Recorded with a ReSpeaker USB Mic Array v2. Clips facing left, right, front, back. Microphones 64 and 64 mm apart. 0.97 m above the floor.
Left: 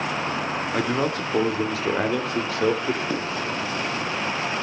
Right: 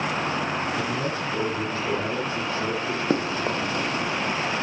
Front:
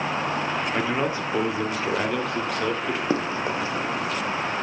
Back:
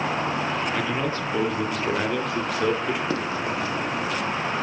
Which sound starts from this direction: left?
A man speaking, at 0.7 s.